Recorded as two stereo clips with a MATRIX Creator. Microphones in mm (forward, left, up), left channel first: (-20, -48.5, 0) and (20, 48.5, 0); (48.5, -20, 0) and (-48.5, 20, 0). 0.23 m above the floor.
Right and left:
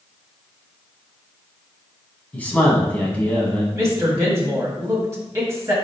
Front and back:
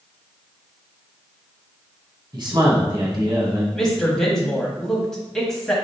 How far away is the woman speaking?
About 1.0 m.